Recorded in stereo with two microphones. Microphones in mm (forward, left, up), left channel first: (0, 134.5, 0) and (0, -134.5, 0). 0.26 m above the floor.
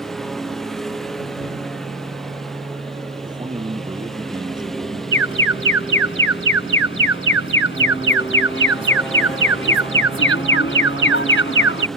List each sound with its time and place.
0.0 s a lawn mower: centre (ahead or behind)
3.2 s a man speaking: 15° right (ahead or behind)
5.1 s an alarm: 50° left (ahead or behind)